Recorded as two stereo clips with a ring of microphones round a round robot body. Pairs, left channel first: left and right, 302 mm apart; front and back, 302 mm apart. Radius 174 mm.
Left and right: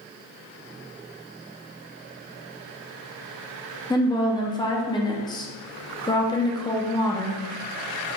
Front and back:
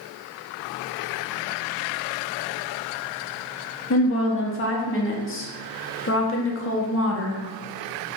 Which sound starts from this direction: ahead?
A woman speaking, at 3.9 s.